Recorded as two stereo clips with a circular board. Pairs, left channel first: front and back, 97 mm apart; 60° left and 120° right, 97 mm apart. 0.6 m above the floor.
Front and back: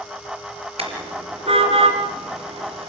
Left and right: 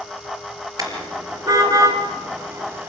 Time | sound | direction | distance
0.8 | a car horn | 170° right | 4.5 m